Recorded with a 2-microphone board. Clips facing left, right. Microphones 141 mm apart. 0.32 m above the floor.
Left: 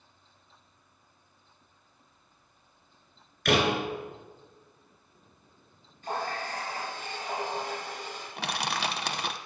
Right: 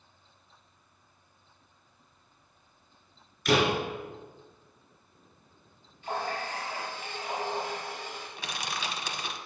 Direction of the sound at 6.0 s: 45° left (ahead or behind).